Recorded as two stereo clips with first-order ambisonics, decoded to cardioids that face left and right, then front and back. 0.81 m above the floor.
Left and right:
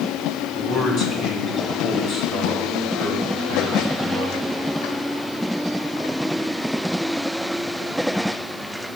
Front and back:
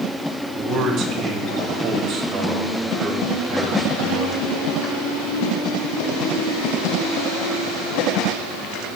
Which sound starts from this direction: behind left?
A man speaking, at 0.5 s.